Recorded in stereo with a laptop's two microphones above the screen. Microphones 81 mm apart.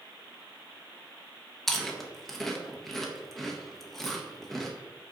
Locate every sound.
1.7 s chewing: 5° left (ahead or behind), 0.6 m